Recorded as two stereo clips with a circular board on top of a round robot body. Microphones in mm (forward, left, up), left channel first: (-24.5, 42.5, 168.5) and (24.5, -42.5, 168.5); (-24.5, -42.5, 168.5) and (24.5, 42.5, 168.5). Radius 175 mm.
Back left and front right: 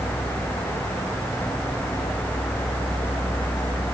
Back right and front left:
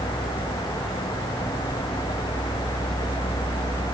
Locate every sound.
Only background noise.